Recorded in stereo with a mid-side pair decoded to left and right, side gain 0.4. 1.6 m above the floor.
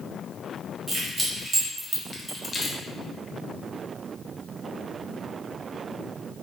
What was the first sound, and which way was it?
Keys jangling, 60° right.